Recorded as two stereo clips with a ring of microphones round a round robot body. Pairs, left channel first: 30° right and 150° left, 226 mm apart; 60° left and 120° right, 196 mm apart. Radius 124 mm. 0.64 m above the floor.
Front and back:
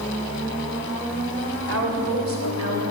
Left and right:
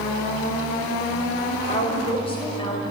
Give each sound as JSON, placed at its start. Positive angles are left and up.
{"t": 1.7, "sound": "a woman speaking", "azimuth_deg": 120, "distance_m": 3.0}